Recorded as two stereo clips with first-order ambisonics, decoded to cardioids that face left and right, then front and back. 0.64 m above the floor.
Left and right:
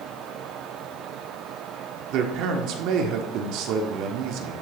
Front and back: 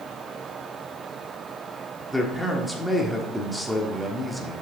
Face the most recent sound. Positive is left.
turn(degrees=-90)